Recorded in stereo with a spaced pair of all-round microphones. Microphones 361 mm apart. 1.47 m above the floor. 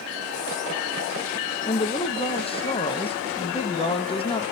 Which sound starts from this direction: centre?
A woman speaking, at 1.7 s.